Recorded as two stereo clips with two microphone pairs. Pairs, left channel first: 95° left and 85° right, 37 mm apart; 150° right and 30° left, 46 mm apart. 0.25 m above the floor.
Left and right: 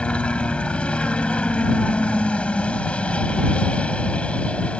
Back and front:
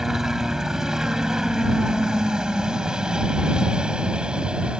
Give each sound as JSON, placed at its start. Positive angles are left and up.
{"t": 0.0, "sound": "a helicopter", "azimuth_deg": 105}